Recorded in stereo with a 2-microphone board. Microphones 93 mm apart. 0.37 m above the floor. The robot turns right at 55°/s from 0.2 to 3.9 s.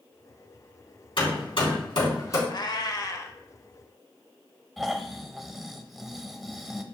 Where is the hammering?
65° left (ahead or behind), 3.5 m; by 2.4 s 35° left (ahead or behind), 3.5 m.